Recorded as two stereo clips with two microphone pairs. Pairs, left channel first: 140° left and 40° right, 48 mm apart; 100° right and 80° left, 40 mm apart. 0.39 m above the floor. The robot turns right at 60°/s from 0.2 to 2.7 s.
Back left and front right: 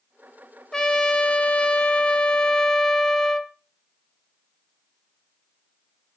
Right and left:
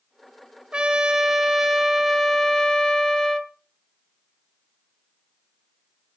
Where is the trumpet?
90° left, 1.0 m; by 3.5 s 150° right, 1.0 m.